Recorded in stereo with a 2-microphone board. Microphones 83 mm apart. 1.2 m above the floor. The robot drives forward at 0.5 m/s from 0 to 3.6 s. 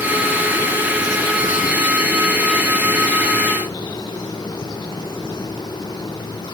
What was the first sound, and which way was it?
Only background noise.